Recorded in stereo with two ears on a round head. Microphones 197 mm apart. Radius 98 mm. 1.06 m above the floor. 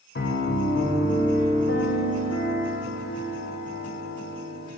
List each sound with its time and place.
0.1 s a piano: 50° left (ahead or behind), 1.9 m